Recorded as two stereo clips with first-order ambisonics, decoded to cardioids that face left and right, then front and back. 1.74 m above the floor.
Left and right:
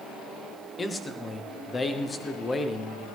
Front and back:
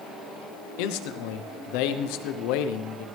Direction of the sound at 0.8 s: 15° left.